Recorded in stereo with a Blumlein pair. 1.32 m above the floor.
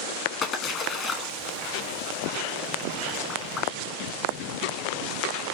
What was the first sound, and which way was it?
A splash, 30° left.